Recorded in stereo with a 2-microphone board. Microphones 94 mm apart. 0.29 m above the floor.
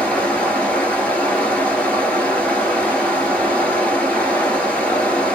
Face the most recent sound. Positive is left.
turn(degrees=15)  # may be behind; listen again after turning